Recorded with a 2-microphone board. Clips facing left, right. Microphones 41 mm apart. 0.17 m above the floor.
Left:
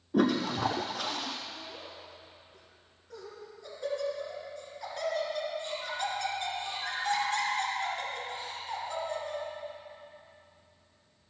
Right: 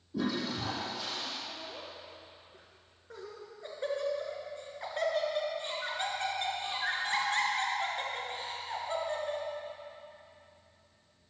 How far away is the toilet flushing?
About 1.2 m.